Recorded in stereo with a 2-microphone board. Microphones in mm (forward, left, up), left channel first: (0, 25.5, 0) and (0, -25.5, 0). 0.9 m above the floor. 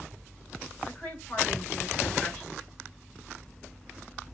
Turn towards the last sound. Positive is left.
turn(degrees=40)  # may be behind; listen again after turning